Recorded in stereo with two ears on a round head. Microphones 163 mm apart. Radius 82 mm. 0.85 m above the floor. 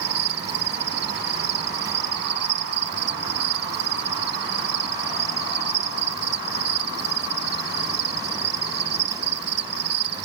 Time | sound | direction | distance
0.0 | an insect | 65° right (ahead or behind) | ?